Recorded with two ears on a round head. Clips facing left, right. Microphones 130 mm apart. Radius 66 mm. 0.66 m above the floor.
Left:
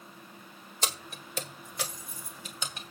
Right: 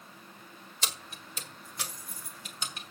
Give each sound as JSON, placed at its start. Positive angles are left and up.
{"t": 0.8, "sound": "keys jangling", "side_deg": 35, "distance_m": 1.3}